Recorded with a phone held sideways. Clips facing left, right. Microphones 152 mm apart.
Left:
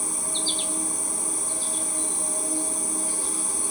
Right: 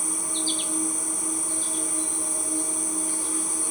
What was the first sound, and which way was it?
An insect, 30° left (ahead or behind).